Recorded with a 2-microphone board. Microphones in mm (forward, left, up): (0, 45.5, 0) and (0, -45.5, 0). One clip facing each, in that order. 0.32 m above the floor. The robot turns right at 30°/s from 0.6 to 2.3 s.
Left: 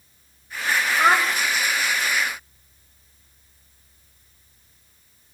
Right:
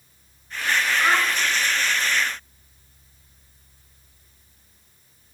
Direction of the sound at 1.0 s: 50° left (ahead or behind).